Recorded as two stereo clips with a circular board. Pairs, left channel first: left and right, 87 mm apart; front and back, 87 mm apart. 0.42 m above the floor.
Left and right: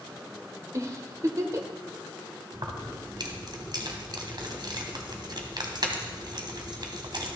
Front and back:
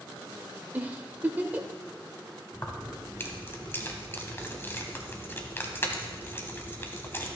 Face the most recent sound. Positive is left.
turn(degrees=-60)